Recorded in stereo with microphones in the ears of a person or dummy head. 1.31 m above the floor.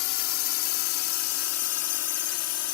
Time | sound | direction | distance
0.0 | a drone | 75° left (ahead or behind) | ?